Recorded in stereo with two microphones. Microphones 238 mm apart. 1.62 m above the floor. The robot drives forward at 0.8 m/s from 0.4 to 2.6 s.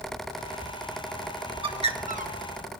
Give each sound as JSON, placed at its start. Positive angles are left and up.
{"t": 1.6, "sound": "a bird", "side_deg": -20, "distance_m": 1.1}